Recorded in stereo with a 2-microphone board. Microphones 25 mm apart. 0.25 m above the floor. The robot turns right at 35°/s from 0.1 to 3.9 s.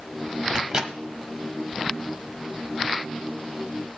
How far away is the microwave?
About 1.2 m.